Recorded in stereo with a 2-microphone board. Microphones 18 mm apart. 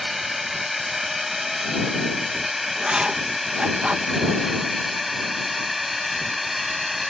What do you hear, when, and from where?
0.0 s a drone: 15° right (ahead or behind); by 7.1 s 10° right (ahead or behind)
2.8 s writing: 70° right (ahead or behind)